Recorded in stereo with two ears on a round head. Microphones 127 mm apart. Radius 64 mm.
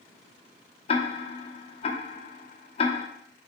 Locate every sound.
0.9 s ticking: 40° left (ahead or behind), 1.0 m